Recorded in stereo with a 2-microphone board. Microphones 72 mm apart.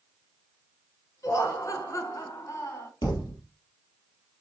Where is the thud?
75° left (ahead or behind), 3.5 m.